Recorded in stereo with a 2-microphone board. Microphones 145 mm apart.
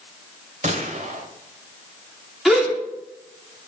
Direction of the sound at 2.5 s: Centre (ahead or behind).